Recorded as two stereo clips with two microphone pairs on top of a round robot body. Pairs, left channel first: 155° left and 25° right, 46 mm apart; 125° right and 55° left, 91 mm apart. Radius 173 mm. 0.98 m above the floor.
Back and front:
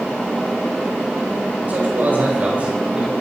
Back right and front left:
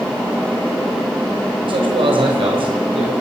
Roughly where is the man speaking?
Ahead left.